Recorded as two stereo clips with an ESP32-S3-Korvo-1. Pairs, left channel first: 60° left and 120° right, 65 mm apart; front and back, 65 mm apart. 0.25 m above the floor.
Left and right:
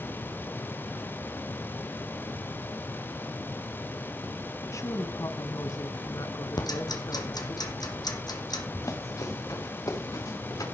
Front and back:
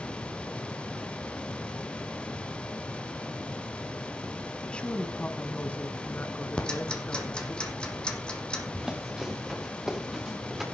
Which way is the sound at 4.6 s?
70° left.